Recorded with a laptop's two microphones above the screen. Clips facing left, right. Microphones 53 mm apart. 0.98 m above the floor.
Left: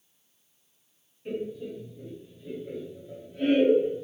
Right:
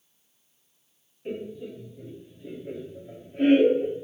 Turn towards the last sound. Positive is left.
turn(degrees=-30)  # may be behind; listen again after turning